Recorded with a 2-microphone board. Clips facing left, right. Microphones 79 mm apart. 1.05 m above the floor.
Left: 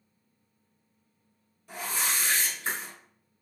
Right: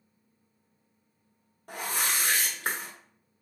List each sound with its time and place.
1.7 s a whoosh: 55° right (ahead or behind), 0.8 m